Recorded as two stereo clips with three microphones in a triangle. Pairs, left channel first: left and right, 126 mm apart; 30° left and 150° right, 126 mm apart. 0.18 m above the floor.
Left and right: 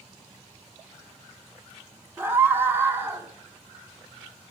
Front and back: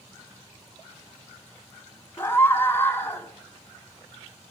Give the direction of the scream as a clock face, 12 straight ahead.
1 o'clock.